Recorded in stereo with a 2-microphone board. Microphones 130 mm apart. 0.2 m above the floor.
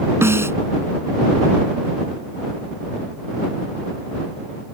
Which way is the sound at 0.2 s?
20° right (ahead or behind).